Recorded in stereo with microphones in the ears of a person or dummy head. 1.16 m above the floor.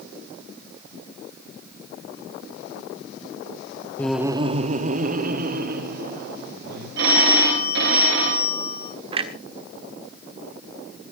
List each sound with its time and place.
4.0 s laughter: 15° left (ahead or behind), 0.6 m; by 6.9 s 55° right (ahead or behind), 3.5 m
7.0 s a phone ringing: 60° right (ahead or behind), 4 m
9.1 s a clunk: 25° right (ahead or behind), 1.3 m